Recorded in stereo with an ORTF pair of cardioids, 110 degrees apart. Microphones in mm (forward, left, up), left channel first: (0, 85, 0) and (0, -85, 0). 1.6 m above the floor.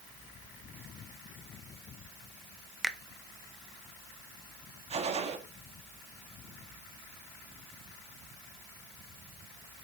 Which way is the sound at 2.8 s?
Straight ahead.